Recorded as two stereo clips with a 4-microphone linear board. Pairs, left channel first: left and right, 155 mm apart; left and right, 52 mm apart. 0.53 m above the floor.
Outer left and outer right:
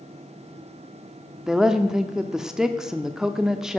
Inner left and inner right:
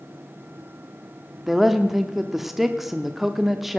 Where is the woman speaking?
5° right (ahead or behind), 0.7 m.